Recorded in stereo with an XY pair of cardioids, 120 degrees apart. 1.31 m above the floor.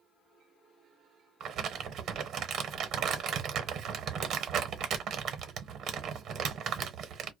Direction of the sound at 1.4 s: 60° right.